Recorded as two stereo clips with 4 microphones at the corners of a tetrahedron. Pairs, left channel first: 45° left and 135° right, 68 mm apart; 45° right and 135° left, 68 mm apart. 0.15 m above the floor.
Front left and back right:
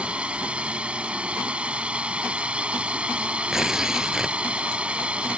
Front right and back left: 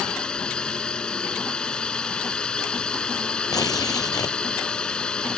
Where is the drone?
95° right.